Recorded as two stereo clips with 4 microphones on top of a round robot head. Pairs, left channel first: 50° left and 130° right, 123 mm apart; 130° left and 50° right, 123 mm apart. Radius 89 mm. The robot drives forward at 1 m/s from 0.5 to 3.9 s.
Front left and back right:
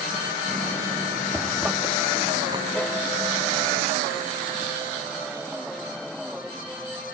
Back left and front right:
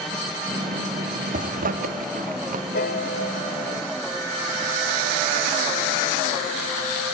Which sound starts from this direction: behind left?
A piano, at 2.7 s.